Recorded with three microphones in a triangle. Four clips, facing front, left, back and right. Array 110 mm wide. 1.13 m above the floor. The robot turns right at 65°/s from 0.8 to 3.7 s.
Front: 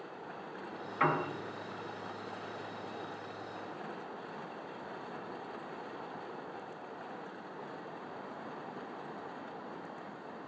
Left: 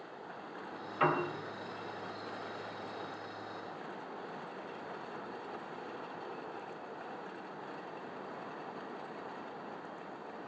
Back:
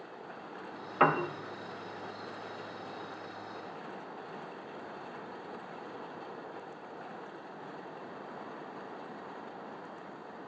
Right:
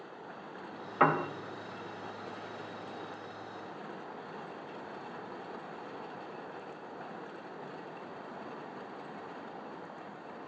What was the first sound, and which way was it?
A piano, 140° right.